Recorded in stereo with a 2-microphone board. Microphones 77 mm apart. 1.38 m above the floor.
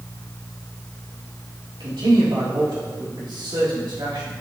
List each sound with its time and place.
1.8 s a man speaking: 80° right, 2.5 m